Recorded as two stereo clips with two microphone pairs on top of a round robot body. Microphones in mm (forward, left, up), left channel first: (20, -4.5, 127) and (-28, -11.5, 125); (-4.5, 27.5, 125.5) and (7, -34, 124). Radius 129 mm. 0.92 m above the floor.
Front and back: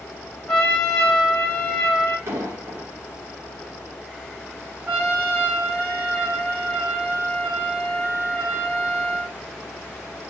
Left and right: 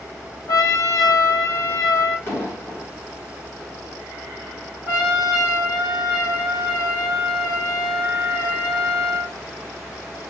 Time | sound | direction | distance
0.5 | a trumpet | 85° left | 1.5 m
2.3 | an explosion | 150° left | 1.3 m
4.9 | a trumpet | 120° left | 1.5 m